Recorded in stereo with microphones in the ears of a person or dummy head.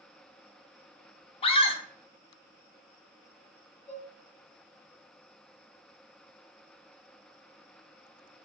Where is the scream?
25° left (ahead or behind), 0.6 m.